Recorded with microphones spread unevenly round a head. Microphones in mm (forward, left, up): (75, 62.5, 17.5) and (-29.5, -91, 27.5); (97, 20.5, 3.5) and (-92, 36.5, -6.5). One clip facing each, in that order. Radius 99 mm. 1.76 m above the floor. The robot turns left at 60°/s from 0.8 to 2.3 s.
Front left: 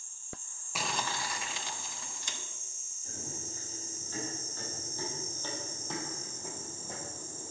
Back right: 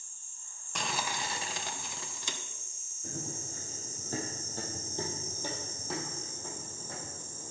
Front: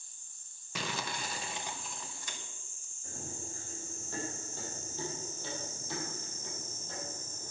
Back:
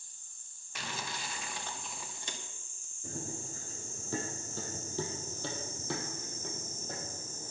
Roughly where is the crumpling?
Ahead right.